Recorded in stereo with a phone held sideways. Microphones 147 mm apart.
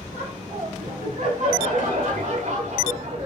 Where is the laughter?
80° right, 3.5 m; by 3.3 s 55° right (ahead or behind), 2.5 m.